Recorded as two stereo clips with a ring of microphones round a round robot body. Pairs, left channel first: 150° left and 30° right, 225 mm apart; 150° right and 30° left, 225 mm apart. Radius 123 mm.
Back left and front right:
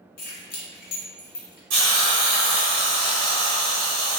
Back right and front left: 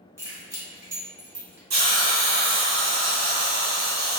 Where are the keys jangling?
105° left, 1.2 m.